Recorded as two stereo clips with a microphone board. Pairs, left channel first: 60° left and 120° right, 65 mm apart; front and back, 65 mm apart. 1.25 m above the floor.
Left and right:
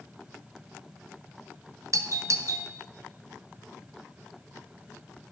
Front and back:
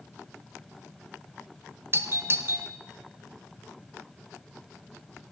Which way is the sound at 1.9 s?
135° right.